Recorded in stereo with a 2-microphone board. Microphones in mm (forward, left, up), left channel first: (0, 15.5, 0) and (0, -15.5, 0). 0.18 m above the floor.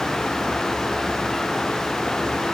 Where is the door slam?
No door slam in this recording.